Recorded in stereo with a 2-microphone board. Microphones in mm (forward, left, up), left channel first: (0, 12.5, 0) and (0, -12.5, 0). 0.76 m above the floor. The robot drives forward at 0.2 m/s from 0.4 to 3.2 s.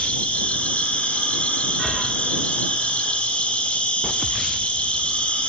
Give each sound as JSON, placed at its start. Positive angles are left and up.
{"t": 0.0, "sound": "an insect", "side_deg": 65, "distance_m": 1.4}